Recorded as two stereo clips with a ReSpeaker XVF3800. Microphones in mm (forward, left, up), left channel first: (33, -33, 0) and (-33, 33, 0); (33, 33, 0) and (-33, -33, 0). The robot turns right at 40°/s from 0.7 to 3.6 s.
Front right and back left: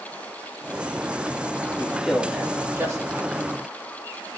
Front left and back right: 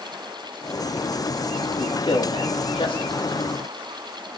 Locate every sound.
1.8 s a man speaking: 30° left, 2.5 m; by 3.3 s 90° left, 2.5 m